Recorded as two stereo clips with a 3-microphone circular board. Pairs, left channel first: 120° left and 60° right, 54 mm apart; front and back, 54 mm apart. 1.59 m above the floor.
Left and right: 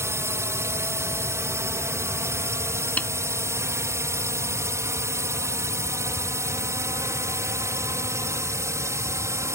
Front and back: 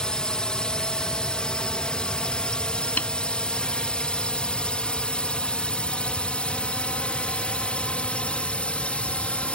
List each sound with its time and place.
0.0 s a drone: 75° right; by 9.6 s 65° right
3.0 s a snare drum: 55° left